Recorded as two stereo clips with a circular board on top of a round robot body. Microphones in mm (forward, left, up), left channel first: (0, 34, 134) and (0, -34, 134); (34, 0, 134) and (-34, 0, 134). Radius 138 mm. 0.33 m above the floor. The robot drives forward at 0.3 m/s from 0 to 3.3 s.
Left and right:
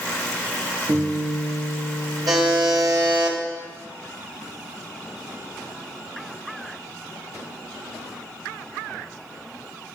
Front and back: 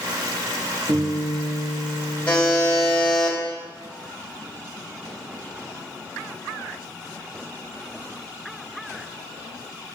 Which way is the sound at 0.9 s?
135° right.